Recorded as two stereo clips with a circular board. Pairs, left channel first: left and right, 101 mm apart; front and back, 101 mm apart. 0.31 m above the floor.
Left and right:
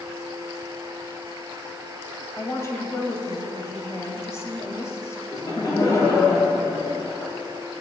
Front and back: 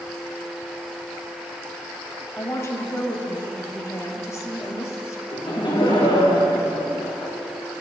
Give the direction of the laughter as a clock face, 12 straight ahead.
11 o'clock.